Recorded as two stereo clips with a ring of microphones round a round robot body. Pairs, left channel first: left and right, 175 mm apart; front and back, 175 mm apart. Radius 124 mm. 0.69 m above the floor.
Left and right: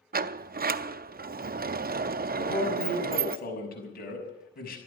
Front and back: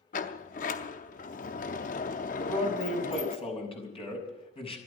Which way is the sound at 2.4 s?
55° left.